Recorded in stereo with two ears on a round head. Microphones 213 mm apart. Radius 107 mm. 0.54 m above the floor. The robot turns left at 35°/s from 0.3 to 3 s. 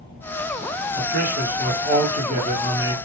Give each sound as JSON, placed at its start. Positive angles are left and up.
{"t": 1.0, "sound": "a man speaking", "azimuth_deg": -75, "distance_m": 1.2}